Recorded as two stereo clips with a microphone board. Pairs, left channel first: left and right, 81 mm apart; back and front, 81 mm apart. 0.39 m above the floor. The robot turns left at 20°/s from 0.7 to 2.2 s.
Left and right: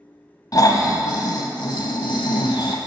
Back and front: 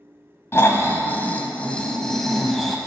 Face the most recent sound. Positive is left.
turn(degrees=95)